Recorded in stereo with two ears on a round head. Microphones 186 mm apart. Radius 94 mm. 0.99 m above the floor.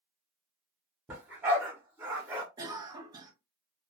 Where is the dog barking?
10° right (ahead or behind), 1.3 m.